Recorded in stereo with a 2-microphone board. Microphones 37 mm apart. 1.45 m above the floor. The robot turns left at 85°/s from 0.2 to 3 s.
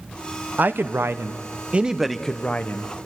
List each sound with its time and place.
0.6 s a man speaking: 50° right, 1.0 m; by 2.9 s 115° left, 1.0 m